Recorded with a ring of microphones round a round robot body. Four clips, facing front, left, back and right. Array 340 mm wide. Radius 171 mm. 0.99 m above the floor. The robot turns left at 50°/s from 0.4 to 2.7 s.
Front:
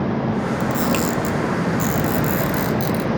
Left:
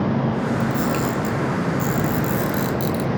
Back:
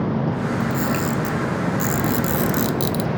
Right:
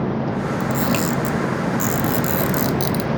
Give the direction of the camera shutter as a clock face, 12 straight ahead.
1 o'clock.